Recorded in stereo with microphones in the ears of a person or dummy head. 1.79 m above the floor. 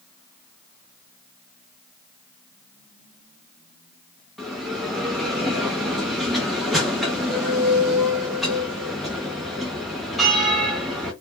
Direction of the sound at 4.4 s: Centre (ahead or behind).